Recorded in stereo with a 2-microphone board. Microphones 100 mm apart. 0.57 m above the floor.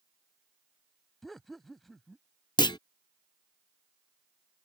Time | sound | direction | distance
1.2 | laughter | centre (ahead or behind) | ?
2.6 | a clunk | 45° left (ahead or behind) | ?